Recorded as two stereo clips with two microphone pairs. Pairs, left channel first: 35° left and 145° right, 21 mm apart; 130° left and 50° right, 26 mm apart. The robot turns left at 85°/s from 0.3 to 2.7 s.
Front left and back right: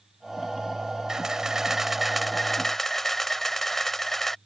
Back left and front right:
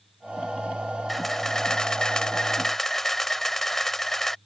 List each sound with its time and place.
1.1 s a camera shutter: 150° right; by 4.4 s 70° left